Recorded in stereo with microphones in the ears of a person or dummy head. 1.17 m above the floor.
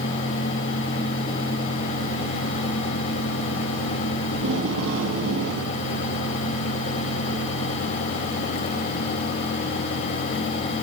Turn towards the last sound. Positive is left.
turn(degrees=-70)  # may be behind; listen again after turning